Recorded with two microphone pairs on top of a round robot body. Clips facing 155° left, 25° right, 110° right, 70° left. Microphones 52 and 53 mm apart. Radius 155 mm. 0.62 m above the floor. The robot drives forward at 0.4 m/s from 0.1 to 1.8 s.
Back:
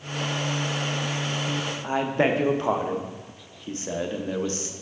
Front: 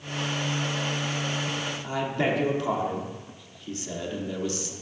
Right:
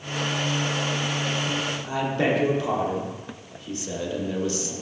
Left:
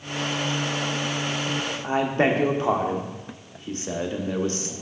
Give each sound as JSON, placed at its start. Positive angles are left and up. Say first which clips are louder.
{"t": 1.8, "sound": "a man speaking", "louder": "back 4 dB, left 4 dB", "azimuth_deg": 110, "distance_m": 0.7}